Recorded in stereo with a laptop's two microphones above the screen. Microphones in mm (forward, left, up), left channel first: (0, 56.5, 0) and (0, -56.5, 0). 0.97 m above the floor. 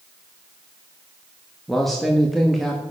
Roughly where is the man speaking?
Centre.